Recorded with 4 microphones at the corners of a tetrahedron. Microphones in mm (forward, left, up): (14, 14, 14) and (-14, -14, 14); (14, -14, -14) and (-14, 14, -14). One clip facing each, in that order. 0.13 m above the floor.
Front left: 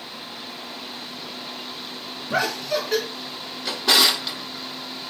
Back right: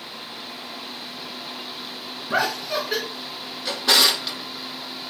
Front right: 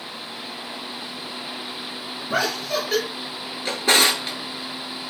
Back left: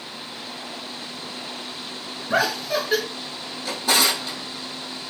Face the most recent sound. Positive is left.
turn(degrees=-45)